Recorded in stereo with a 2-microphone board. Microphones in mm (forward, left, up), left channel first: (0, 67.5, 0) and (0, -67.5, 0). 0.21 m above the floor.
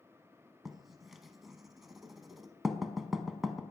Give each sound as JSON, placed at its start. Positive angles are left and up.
{"t": 0.7, "sound": "writing", "side_deg": 0, "distance_m": 0.5}